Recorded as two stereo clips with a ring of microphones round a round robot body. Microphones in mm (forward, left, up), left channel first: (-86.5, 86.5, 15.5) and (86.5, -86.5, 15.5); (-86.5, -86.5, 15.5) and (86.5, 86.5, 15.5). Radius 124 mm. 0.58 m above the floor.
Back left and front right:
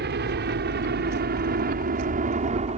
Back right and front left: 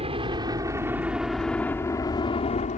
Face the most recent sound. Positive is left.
turn(degrees=-95)